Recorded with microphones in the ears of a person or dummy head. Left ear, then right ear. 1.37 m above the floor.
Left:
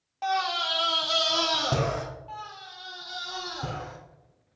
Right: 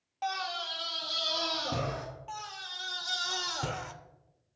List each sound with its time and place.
0.2 s a scream: 5° right (ahead or behind), 0.5 m; by 2.0 s 75° left (ahead or behind), 1.4 m
2.3 s a scream: 55° right (ahead or behind), 0.8 m